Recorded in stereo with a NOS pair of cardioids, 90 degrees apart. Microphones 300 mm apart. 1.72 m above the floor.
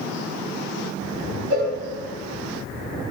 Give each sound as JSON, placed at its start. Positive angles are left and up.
{"t": 1.5, "sound": "a cowbell", "azimuth_deg": -65, "distance_m": 5.5}